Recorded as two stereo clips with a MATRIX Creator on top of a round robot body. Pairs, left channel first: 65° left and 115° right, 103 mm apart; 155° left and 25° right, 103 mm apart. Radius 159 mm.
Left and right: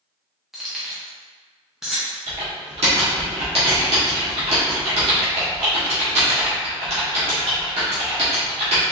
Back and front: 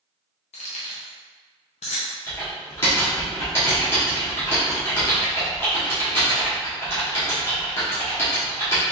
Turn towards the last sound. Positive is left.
turn(degrees=-135)